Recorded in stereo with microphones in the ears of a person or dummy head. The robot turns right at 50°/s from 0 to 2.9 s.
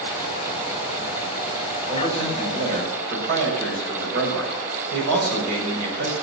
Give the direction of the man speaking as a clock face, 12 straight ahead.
6 o'clock.